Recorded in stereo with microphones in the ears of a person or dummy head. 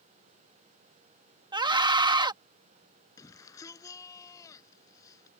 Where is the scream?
20° right (ahead or behind).